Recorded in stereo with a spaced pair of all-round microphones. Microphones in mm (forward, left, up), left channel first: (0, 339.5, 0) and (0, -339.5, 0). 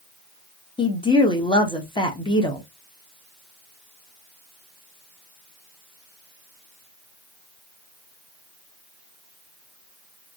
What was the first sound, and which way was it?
A woman speaking, 10° left (ahead or behind).